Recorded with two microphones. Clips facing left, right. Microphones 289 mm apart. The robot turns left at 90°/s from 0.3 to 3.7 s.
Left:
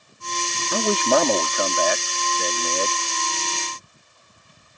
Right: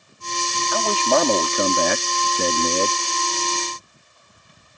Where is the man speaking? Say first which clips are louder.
Left 1 dB; 45° left; by 3.0 s 160° right.